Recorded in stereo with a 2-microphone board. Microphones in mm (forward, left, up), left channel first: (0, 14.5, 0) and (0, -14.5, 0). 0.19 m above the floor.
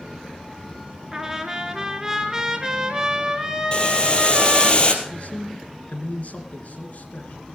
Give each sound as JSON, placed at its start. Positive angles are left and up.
{"t": 1.1, "sound": "a trumpet", "side_deg": -15, "distance_m": 1.5}
{"t": 3.7, "sound": "boiling", "side_deg": 30, "distance_m": 2.0}
{"t": 5.0, "sound": "a man speaking", "side_deg": 55, "distance_m": 2.5}